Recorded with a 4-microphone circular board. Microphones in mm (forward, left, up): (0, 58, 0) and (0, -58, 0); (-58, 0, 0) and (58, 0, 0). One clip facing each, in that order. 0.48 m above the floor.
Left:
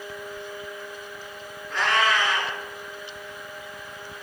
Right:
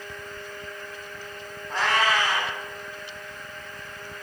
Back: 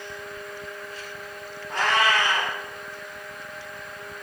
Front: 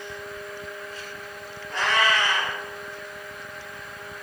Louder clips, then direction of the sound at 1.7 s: Even, back 1 dB; 140° right.